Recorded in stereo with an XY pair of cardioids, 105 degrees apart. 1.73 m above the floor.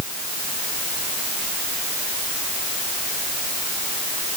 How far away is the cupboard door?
No cupboard door in this recording.